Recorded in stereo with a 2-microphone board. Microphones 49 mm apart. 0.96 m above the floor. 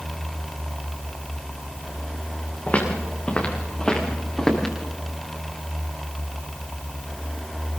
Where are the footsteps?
30° left (ahead or behind), 5.5 m; by 4.8 s 10° left (ahead or behind), 7 m.